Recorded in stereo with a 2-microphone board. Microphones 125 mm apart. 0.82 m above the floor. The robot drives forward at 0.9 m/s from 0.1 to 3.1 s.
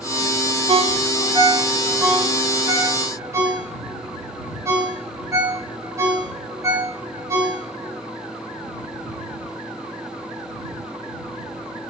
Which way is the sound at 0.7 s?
60° right (ahead or behind).